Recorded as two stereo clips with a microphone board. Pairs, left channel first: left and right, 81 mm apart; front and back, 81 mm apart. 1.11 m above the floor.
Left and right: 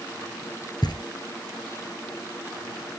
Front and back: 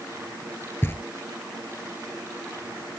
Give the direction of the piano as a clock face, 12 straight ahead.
No piano in this recording.